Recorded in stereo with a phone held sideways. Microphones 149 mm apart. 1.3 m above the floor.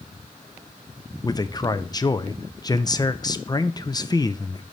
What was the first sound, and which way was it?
A man speaking, 25° left (ahead or behind).